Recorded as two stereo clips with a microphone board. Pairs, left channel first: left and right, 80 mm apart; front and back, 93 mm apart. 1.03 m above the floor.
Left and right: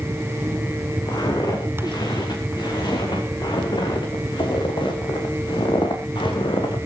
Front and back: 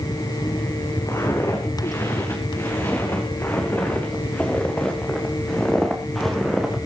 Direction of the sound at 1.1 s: 55° left.